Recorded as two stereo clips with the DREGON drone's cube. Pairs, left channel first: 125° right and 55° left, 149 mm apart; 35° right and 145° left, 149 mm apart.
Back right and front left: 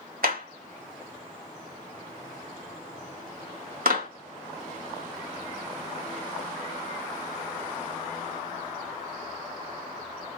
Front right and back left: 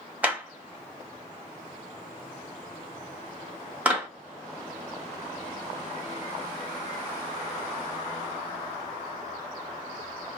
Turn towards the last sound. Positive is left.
turn(degrees=65)